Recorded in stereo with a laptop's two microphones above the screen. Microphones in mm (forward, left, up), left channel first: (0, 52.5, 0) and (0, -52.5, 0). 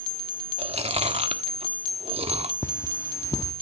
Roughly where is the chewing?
Right.